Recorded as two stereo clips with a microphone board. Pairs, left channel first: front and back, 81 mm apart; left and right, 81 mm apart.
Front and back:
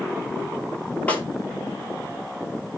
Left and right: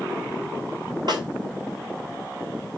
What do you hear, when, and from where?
1.1 s a snare drum: 70° right, 1.9 m